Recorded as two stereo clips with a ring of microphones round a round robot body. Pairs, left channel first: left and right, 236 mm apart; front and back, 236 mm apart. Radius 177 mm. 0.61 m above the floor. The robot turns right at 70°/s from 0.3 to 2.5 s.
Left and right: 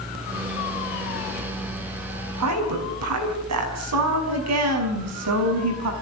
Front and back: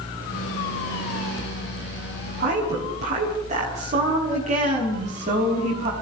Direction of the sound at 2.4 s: 120° right.